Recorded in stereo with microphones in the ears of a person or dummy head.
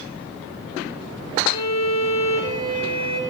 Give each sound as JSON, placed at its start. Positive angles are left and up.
{"t": 1.5, "sound": "a violin", "side_deg": 30, "distance_m": 3.5}